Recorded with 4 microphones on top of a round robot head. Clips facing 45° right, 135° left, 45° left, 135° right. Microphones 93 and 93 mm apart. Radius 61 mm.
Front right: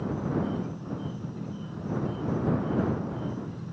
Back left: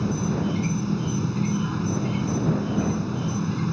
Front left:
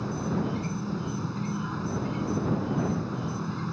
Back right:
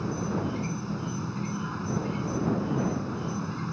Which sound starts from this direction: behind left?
An insect, at 0.0 s.